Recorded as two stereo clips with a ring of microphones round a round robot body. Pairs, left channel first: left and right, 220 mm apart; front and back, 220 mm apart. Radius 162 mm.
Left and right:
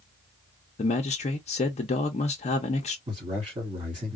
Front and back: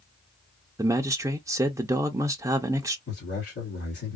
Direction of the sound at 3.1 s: 25° right.